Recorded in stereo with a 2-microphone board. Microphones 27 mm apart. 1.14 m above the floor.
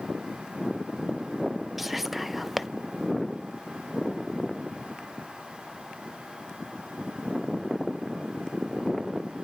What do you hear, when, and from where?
1.8 s whispering: 5° right (ahead or behind), 0.7 m